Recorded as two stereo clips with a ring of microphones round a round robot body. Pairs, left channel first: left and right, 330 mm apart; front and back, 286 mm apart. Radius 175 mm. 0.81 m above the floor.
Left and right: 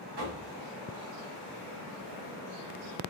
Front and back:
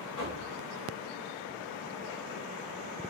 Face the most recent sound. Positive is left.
turn(degrees=-75)